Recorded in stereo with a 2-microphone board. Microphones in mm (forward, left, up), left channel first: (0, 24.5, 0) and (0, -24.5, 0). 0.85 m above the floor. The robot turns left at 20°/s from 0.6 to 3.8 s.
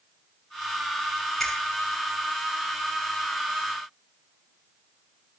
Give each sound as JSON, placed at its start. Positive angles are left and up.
{"t": 1.4, "sound": "a finger snap", "side_deg": 5, "distance_m": 7.0}